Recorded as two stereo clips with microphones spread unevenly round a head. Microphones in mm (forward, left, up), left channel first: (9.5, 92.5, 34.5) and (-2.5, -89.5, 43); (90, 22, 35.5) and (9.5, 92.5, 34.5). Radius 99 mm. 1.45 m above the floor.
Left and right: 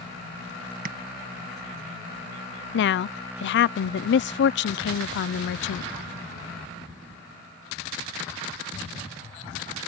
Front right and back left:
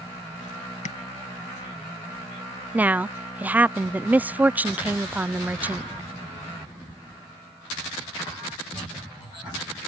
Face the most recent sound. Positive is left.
turn(degrees=60)